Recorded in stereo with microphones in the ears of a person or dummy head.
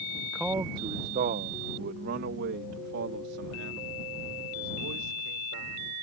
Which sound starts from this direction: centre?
A man speaking, at 0.2 s.